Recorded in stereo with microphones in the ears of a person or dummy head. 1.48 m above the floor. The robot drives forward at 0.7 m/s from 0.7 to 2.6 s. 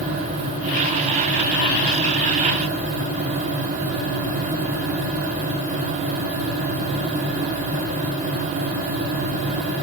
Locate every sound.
Only background noise.